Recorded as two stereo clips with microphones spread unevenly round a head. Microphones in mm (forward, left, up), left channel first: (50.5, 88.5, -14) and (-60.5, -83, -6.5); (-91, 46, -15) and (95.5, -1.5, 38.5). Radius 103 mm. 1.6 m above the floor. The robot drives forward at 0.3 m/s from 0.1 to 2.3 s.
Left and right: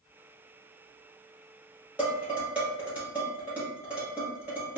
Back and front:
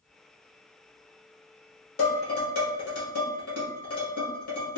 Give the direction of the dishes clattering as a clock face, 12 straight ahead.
7 o'clock.